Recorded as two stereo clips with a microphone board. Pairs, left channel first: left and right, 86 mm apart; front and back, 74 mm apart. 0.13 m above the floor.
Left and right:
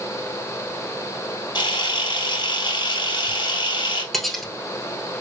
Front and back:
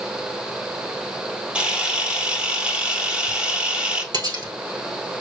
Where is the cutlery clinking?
Straight behind, 1.3 m.